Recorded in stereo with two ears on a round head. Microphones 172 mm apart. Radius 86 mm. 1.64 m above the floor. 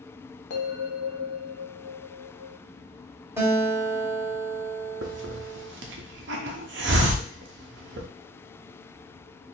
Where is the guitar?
15° right (ahead or behind), 1.4 m.